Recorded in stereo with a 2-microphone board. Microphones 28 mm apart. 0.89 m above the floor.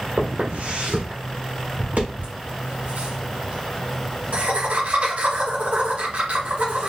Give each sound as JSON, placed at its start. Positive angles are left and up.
{"t": 0.2, "sound": "footsteps", "side_deg": -60, "distance_m": 1.7}
{"t": 2.2, "sound": "laughter", "side_deg": -75, "distance_m": 2.0}